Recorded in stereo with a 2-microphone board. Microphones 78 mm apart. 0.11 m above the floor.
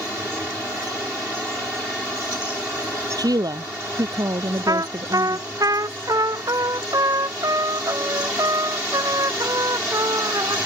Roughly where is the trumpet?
Right.